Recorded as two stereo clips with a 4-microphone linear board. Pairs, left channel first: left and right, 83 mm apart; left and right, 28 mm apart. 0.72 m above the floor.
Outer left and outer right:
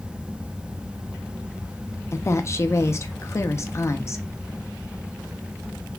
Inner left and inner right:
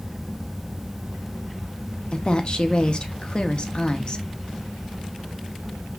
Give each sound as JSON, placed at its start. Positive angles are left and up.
{"t": 2.1, "sound": "a woman speaking", "side_deg": 35, "distance_m": 0.6}